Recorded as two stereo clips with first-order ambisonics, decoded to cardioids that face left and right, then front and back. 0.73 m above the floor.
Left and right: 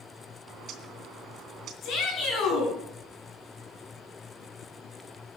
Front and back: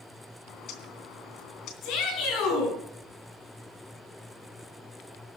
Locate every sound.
0.5 s a bird: 40° right, 2.5 m
1.8 s a shout: 40° left, 6.5 m